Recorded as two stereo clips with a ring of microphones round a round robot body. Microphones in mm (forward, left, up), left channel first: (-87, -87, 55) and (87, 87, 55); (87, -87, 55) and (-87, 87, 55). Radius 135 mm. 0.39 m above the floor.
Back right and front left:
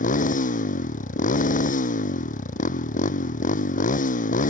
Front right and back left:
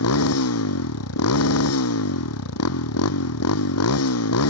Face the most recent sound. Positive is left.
turn(degrees=-75)